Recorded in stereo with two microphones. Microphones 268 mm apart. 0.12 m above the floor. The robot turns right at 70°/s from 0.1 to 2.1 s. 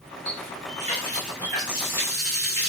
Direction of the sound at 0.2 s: 105° left.